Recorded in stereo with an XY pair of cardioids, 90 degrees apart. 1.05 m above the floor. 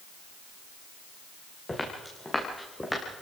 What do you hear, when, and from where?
1.7 s footsteps: 20° left, 6 m